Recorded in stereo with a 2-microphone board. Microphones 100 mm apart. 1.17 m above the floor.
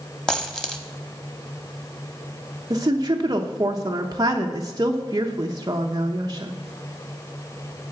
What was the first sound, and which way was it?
A dropped coin, 5° left (ahead or behind).